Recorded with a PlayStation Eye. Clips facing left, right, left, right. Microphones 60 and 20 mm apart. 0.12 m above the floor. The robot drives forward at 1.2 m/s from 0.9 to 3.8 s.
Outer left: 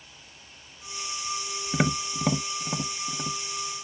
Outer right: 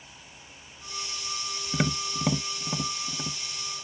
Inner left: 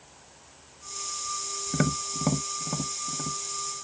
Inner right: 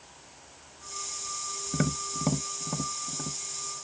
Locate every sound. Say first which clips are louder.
1.7 s tapping: outer left 2 dB, inner left 2 dB; 15° left (ahead or behind); by 3.4 s 5° left (ahead or behind)